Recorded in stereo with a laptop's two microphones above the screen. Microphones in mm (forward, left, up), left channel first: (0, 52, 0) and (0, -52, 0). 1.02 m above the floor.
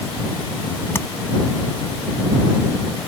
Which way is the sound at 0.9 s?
20° left (ahead or behind).